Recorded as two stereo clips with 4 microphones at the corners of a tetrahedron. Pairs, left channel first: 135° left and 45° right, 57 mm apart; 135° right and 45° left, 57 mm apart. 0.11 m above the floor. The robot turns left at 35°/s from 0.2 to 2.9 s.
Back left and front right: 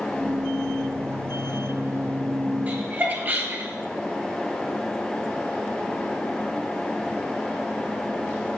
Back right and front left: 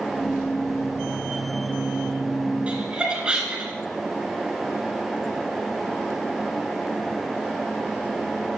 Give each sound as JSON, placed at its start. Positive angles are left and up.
{"t": 2.7, "sound": "laughter", "azimuth_deg": -10, "distance_m": 2.0}